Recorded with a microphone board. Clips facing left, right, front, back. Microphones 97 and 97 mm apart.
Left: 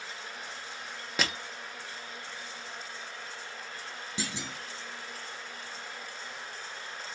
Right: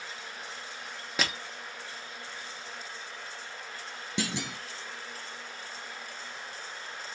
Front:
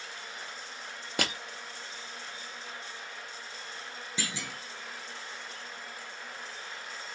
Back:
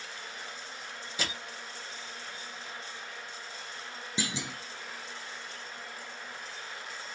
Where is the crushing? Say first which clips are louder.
Even, front 4 dB; straight ahead, 0.8 m.